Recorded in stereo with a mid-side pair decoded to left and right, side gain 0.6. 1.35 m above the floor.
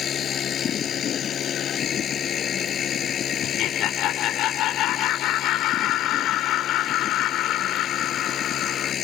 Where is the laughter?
65° left.